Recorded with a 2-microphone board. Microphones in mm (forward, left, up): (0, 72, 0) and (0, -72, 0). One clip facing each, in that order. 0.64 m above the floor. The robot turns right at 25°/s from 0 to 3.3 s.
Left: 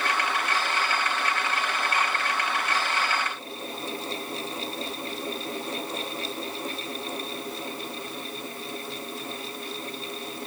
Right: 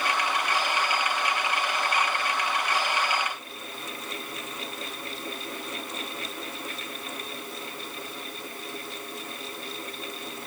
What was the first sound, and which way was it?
Only background noise.